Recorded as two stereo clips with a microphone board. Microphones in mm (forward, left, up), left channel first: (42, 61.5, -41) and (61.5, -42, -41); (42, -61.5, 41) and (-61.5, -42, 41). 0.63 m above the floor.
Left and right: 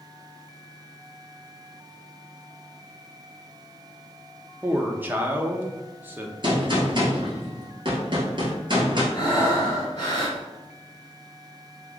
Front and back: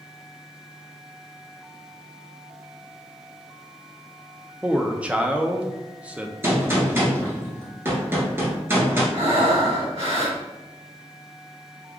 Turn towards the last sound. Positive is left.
turn(degrees=150)